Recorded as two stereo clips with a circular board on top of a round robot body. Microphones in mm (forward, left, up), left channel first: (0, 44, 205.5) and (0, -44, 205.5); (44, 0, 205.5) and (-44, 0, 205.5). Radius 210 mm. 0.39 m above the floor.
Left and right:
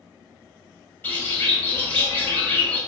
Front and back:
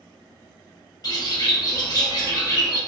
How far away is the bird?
About 1.5 m.